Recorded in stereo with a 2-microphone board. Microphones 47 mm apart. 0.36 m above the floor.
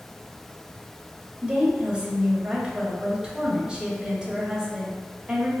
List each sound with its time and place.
1.4 s a woman speaking: 20° right (ahead or behind), 1.0 m